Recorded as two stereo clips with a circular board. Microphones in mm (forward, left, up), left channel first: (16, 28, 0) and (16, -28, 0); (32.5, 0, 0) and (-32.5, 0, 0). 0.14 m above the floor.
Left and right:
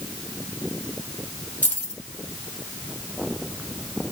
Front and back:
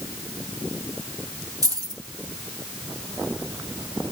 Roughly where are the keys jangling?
Behind.